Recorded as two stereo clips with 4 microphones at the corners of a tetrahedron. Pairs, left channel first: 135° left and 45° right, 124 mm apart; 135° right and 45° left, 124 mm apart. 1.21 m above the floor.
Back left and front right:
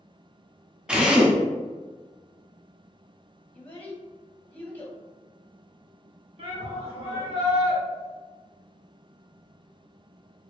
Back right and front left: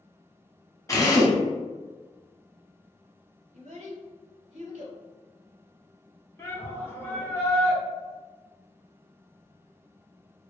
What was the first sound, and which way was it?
A drill, 120° right.